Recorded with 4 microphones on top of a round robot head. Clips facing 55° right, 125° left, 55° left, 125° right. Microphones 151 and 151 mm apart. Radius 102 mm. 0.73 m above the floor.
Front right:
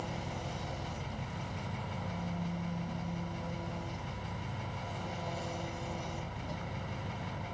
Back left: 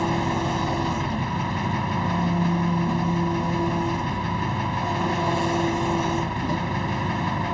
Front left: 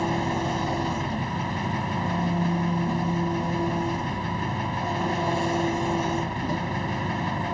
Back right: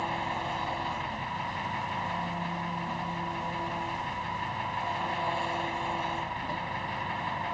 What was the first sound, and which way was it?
An engine running, 105° left.